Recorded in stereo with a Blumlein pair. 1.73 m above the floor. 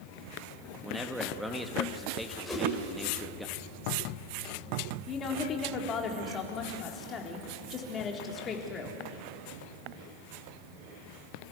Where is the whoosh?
10° left, 9 m.